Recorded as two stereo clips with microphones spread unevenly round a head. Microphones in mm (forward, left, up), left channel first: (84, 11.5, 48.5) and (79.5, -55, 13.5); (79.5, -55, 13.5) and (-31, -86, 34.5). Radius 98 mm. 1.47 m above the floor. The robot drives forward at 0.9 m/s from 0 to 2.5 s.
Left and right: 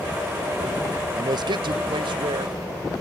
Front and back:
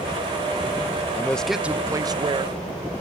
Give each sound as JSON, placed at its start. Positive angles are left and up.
{"t": 1.1, "sound": "a man speaking", "azimuth_deg": -60}